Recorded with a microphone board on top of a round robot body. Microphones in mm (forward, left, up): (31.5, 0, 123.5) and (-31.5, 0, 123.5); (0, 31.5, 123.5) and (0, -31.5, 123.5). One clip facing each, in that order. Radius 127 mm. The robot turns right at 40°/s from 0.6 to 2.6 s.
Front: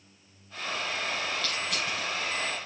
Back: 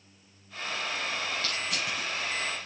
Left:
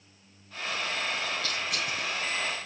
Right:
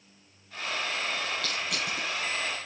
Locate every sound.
1.4 s crushing: 120° right, 6 m; by 2.1 s 95° right, 6 m